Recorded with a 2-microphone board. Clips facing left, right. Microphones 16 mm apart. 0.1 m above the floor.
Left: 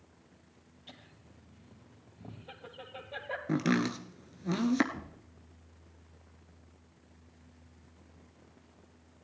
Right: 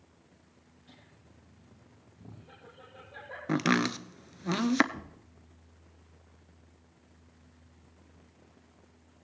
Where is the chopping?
25° right (ahead or behind), 0.6 m.